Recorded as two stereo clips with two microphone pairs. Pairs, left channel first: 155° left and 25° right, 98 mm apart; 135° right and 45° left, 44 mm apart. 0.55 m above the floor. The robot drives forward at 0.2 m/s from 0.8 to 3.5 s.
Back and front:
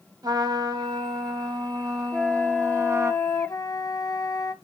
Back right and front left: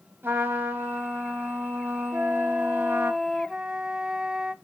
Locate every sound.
0.2 s a trumpet: 15° left, 0.9 m; by 3.1 s 30° left, 0.5 m
2.1 s a flute: 75° left, 0.5 m; by 4.5 s 110° left, 0.5 m